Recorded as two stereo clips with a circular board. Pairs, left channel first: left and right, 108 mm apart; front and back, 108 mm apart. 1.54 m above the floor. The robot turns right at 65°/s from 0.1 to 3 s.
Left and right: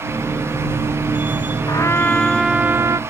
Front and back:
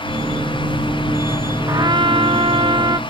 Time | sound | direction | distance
1.7 | a trumpet | 135° left | ?